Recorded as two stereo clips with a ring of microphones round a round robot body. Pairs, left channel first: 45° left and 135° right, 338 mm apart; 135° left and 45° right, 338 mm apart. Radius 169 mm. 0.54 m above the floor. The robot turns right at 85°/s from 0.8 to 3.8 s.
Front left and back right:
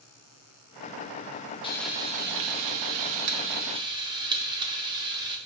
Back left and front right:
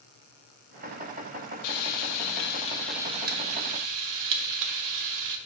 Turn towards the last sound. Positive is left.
turn(degrees=-60)